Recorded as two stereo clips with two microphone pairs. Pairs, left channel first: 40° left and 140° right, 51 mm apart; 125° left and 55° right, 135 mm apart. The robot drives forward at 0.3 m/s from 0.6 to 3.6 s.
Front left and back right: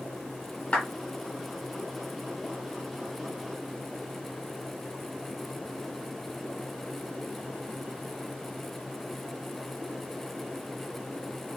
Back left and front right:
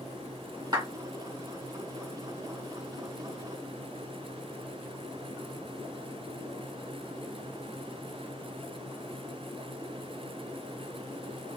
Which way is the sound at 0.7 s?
10° right.